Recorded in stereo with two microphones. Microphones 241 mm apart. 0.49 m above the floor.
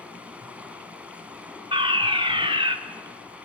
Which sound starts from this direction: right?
A fire alarm, at 1.7 s.